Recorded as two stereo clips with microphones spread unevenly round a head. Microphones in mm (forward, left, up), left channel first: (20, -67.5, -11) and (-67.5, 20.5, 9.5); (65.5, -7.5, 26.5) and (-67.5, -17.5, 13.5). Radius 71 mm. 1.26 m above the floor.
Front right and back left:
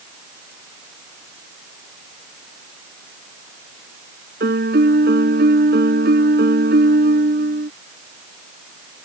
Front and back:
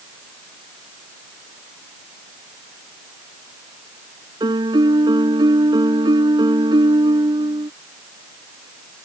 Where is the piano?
120° left.